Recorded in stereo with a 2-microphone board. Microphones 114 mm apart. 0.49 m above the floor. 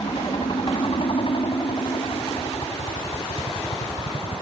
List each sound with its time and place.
0.0 s a helicopter: 50° left (ahead or behind)